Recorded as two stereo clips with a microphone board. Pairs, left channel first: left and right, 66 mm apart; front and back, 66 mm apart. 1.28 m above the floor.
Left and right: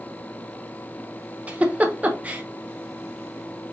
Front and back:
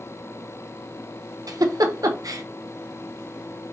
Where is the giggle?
160° right, 0.8 m.